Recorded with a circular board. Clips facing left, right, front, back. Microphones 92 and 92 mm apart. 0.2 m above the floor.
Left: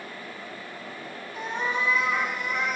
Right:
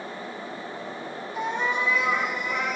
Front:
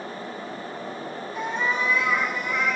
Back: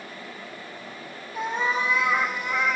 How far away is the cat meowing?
About 3 m.